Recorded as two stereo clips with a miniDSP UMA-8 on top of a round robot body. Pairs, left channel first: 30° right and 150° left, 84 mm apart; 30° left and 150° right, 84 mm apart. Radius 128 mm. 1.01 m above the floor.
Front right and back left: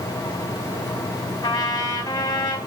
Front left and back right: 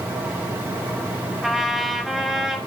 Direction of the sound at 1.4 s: 65° right.